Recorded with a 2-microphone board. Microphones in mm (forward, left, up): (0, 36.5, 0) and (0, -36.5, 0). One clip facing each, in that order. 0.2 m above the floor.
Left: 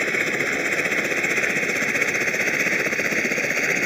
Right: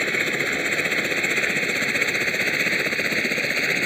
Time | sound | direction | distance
0.0 | a helicopter | 5° left (ahead or behind) | ?